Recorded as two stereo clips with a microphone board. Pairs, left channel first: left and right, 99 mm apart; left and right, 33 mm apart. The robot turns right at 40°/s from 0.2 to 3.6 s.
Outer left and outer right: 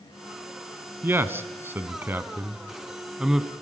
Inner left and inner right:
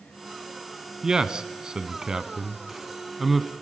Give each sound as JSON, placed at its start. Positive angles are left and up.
{"t": 1.0, "sound": "a man speaking", "side_deg": -20, "distance_m": 1.0}